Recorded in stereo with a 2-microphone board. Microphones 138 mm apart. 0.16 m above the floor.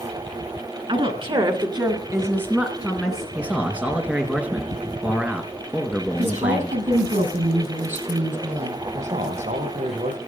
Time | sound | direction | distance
0.9 | a woman speaking | 45° right (ahead or behind) | 2.5 m
3.4 | a man speaking | 10° right (ahead or behind) | 2.5 m
6.2 | a woman speaking | 75° right (ahead or behind) | 5.5 m
8.9 | a man speaking | 70° right (ahead or behind) | 6 m